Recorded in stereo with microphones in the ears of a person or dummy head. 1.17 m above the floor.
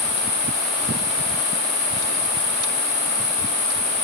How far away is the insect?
About 2.5 m.